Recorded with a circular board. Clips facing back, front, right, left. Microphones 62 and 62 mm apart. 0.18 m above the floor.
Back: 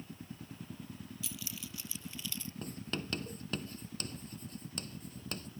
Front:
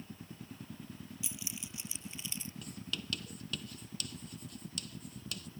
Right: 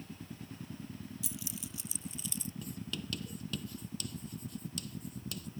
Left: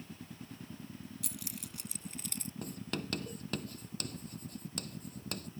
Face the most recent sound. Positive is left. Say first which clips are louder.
# back 5 dB, left 2 dB
turn(degrees=125)